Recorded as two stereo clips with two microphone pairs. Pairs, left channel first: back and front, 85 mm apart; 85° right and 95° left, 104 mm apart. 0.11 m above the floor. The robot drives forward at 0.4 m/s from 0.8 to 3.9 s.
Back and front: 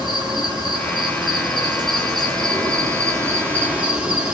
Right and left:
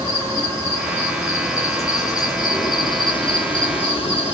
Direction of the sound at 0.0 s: 25° right.